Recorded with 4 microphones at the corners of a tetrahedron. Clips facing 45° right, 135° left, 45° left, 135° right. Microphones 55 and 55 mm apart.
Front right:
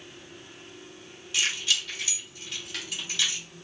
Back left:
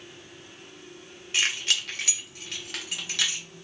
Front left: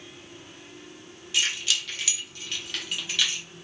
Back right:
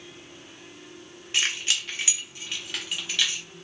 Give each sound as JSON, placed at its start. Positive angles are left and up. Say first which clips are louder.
{"t": 1.3, "sound": "keys jangling", "louder": "back left 1 dB, even", "azimuth_deg": 180, "distance_m": 1.2}